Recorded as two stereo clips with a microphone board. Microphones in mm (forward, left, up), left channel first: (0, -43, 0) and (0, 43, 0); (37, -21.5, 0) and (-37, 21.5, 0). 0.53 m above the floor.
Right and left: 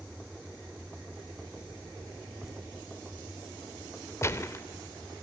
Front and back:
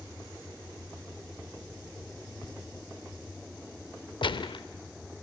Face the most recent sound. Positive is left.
turn(degrees=-35)